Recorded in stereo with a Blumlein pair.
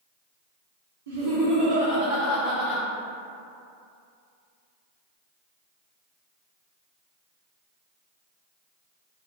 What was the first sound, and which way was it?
Laughter, 60° right.